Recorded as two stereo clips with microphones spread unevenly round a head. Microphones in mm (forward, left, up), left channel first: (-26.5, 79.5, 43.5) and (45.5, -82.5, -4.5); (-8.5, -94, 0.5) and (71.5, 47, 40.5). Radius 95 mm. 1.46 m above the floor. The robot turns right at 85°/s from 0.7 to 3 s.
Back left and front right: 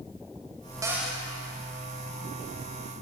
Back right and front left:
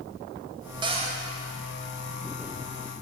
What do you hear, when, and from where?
0.8 s a cupboard door: 15° left, 0.7 m; by 1.2 s 45° left, 0.7 m